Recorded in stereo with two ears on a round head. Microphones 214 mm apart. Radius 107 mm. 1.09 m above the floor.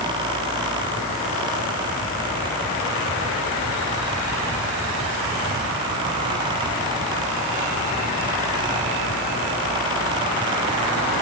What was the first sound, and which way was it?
Only background noise.